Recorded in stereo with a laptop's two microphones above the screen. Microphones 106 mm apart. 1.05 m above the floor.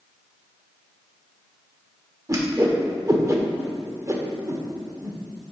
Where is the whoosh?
30° right (ahead or behind), 1.1 m.